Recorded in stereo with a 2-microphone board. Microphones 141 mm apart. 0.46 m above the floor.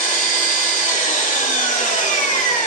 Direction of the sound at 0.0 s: 65° left (ahead or behind).